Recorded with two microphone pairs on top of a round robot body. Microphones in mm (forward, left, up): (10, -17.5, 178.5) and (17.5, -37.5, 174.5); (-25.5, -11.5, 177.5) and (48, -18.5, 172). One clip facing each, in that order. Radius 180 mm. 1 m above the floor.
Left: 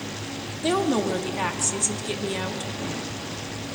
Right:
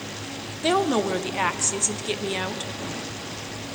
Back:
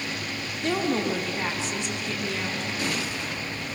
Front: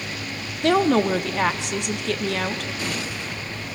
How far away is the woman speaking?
About 1.4 m.